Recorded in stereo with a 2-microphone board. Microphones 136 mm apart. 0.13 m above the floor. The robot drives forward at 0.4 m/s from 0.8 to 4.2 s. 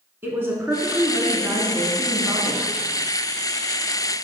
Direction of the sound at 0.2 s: 15° right (ahead or behind).